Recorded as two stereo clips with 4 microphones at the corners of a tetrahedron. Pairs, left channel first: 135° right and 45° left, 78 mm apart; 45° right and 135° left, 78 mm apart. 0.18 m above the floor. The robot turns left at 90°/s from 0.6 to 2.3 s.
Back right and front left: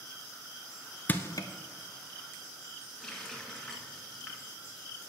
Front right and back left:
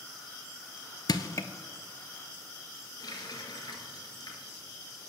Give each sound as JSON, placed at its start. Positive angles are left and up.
{"t": 1.1, "sound": "crushing", "azimuth_deg": -70, "distance_m": 0.6}
{"t": 3.0, "sound": "a running tap", "azimuth_deg": -50, "distance_m": 1.4}